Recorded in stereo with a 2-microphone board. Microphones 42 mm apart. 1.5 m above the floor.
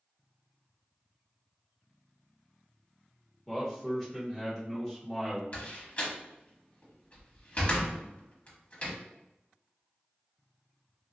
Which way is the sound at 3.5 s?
10° left (ahead or behind).